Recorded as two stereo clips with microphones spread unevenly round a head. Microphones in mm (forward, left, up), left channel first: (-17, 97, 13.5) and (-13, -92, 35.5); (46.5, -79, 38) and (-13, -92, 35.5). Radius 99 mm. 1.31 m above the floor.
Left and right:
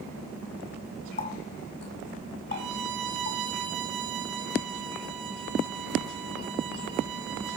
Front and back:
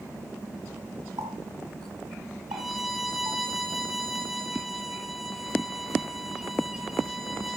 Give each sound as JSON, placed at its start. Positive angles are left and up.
{"t": 1.2, "sound": "a running tap", "azimuth_deg": 140, "distance_m": 8.0}
{"t": 2.5, "sound": "a violin", "azimuth_deg": -80, "distance_m": 4.5}